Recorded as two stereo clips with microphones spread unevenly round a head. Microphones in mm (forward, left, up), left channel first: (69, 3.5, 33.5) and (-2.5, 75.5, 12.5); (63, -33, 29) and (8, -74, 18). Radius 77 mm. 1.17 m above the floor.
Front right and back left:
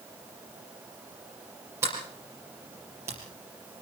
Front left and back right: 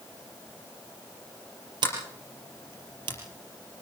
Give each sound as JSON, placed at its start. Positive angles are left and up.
{"t": 1.8, "sound": "a sliding door", "azimuth_deg": -150, "distance_m": 4.5}